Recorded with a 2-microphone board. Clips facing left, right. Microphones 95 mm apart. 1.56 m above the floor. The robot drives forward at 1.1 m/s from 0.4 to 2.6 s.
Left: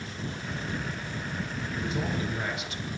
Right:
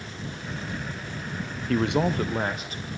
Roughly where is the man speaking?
Right.